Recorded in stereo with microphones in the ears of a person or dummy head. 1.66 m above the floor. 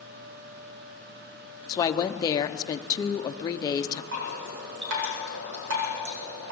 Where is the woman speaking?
20° left (ahead or behind), 0.9 m.